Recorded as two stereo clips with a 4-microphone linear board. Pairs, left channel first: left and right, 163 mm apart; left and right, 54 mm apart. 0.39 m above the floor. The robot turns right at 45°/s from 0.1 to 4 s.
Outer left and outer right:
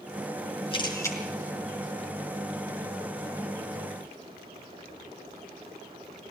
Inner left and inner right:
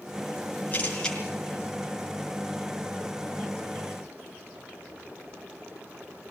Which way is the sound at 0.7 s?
35° left (ahead or behind).